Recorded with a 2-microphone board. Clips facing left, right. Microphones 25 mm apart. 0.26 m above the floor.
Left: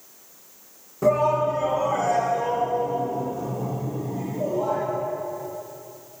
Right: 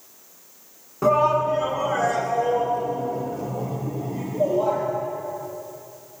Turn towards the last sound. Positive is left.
turn(degrees=-80)